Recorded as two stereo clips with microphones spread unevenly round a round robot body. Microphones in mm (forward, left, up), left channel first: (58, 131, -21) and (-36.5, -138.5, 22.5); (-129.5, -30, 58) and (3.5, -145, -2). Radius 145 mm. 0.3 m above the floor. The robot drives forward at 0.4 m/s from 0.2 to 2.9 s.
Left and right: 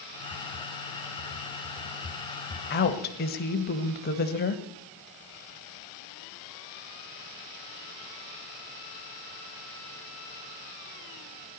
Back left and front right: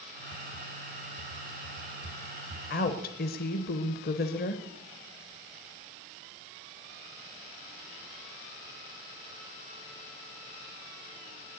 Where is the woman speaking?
90° left, 1.3 m; by 4.6 s 95° left, 1.3 m.